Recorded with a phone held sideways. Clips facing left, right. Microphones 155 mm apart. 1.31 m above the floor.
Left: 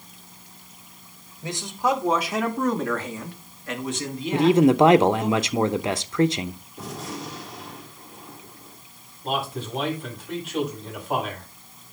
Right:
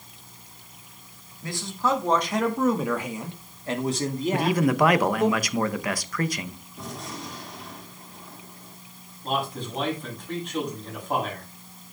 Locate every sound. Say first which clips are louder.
1.4 s a man speaking: left 2 dB; 25° left (ahead or behind), 2.5 m; by 5.3 s 60° right (ahead or behind), 3 m
4.3 s a man speaking: left 8 dB; 25° left (ahead or behind), 0.9 m
6.8 s a gunshot: left 2 dB; centre (ahead or behind), 4 m
9.2 s a man speaking: left 1 dB; 5° left (ahead or behind), 7.5 m